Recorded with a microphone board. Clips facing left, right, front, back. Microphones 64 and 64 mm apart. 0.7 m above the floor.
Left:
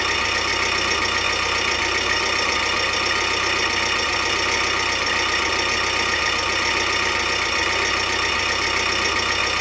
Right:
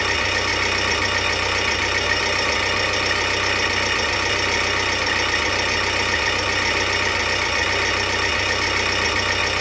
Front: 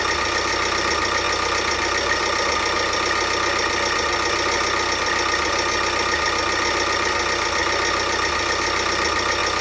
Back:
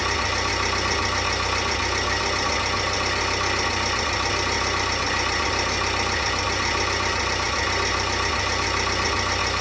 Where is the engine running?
5° left, 0.9 m.